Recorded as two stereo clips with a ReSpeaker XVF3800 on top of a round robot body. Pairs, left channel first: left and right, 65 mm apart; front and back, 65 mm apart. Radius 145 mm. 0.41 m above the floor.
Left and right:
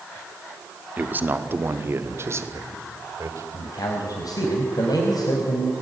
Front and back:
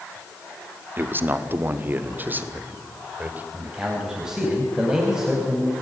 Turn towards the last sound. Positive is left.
turn(degrees=100)